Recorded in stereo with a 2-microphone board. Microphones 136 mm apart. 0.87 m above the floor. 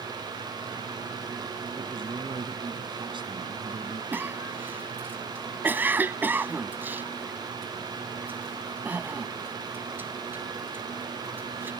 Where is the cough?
15° right (ahead or behind).